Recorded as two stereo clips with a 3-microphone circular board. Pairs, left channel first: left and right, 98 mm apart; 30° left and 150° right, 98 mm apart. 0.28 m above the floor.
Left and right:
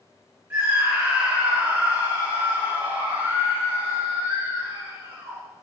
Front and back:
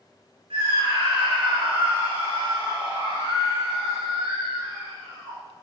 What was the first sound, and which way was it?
A scream, 155° right.